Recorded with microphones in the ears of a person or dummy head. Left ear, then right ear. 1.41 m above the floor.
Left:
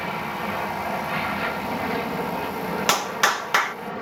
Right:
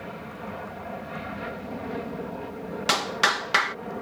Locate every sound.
0.0 s an aircraft: 60° left (ahead or behind)
2.9 s a clap: 30° left (ahead or behind)